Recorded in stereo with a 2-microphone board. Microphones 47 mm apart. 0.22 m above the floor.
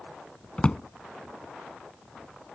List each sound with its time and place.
0.6 s a drawer: 25° left (ahead or behind)